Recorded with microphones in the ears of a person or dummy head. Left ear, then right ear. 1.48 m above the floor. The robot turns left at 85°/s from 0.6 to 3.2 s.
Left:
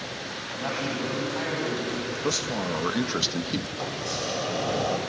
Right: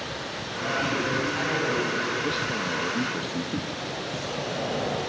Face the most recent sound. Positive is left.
turn(degrees=80)